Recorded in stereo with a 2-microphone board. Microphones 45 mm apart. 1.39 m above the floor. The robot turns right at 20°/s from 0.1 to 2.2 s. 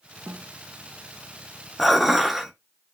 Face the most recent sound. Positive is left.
turn(degrees=-5)  # may be behind; listen again after turning